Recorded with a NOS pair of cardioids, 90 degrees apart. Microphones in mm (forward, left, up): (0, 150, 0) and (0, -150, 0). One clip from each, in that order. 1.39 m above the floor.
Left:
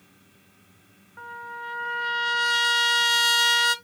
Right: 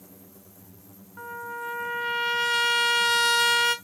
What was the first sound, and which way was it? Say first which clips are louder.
A trumpet: right 1 dB; 5° right.